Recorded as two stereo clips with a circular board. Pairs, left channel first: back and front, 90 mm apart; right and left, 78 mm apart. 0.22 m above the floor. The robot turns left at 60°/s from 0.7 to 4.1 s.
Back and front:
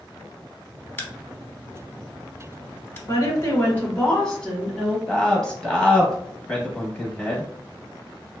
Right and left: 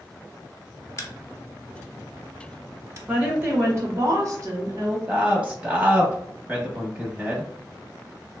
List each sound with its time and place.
1.0 s a crack: 120° right, 0.7 m; by 3.0 s 120° left, 0.7 m
3.1 s a woman speaking: 160° left, 1.3 m; by 5.0 s 95° left, 1.3 m
5.1 s a man speaking: 120° left, 1.0 m